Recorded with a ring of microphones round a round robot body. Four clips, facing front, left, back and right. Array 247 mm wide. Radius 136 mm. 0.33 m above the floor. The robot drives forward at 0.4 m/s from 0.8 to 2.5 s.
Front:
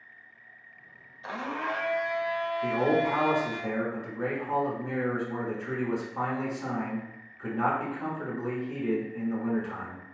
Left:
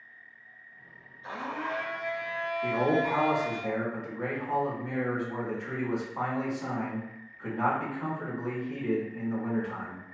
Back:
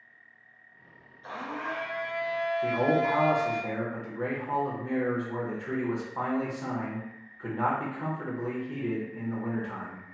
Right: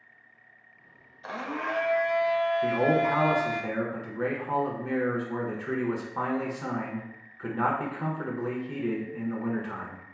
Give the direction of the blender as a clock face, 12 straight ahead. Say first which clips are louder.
Right 2 dB, front 3 dB; 2 o'clock.